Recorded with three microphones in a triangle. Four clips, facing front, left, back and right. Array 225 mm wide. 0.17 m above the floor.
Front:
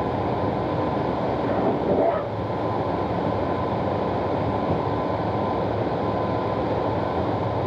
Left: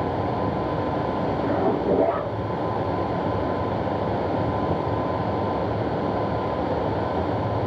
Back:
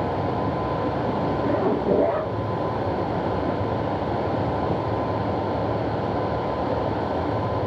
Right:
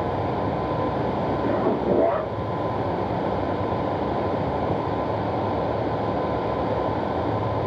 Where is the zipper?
105° right, 1.9 m.